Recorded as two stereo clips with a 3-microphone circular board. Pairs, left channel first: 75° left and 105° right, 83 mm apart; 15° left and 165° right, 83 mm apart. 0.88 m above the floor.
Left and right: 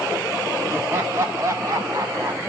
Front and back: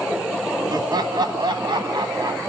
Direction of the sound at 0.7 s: 165° right.